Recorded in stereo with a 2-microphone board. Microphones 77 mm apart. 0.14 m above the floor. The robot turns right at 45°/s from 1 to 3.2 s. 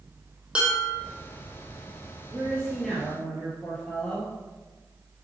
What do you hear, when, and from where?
0.6 s dishes clattering: 15° right (ahead or behind), 4 m
2.3 s a woman speaking: 25° right, 4 m; by 4.3 s 15° left, 4 m